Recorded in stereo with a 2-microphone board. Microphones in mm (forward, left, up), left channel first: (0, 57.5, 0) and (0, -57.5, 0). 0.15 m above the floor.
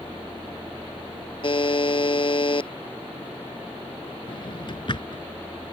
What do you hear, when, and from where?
1.4 s a buzzer: 50° left (ahead or behind)
4.3 s a drawer: 50° left (ahead or behind)